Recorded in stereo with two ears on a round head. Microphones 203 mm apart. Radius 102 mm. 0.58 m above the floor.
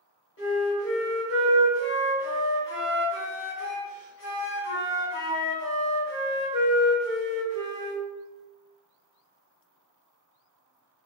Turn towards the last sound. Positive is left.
turn(degrees=60)  # may be behind; listen again after turning